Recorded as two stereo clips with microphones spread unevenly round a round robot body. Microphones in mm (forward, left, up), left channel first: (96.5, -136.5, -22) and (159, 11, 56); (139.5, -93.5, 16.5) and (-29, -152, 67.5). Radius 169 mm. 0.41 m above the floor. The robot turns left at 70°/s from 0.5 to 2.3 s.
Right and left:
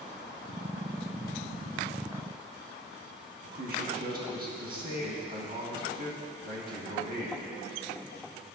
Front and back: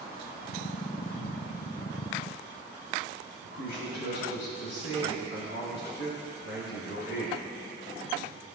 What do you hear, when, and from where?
3.4 s a man speaking: 30° left, 4 m